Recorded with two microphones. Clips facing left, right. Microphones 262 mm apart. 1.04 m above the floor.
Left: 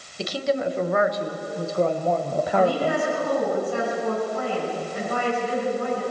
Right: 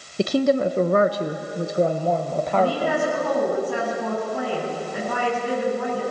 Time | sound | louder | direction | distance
0.2 | a woman speaking | right 6 dB | 55° right (ahead or behind) | 1.1 m
2.5 | a woman speaking | even | 65° right (ahead or behind) | 9 m